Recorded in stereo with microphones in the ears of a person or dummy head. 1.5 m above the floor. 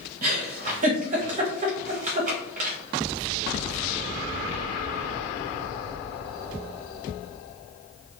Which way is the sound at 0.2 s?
35° right (ahead or behind).